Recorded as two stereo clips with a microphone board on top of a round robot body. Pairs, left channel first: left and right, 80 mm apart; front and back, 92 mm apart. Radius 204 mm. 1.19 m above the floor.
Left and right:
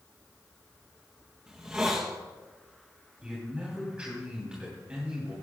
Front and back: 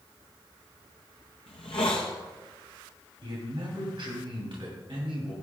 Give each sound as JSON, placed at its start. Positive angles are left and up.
{"t": 1.5, "sound": "a hiss", "azimuth_deg": -15, "distance_m": 0.6}
{"t": 3.2, "sound": "a man speaking", "azimuth_deg": -165, "distance_m": 3.0}